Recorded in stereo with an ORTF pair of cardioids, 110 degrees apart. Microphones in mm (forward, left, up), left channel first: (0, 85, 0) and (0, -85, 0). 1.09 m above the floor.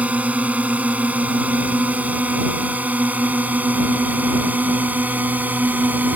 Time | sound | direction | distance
0.0 | a drone | 10° right | ?